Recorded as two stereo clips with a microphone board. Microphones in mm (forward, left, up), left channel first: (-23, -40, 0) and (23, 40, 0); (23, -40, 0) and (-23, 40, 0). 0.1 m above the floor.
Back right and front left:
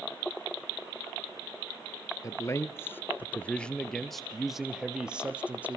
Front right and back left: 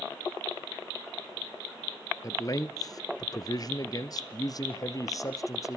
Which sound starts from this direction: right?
A man speaking, at 2.2 s.